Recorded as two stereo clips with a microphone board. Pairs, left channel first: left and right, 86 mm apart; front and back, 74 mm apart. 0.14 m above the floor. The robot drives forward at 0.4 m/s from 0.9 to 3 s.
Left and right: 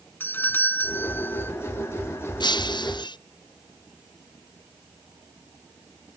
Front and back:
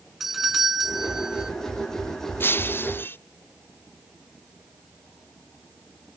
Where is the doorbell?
100° left; by 1.5 s 115° left.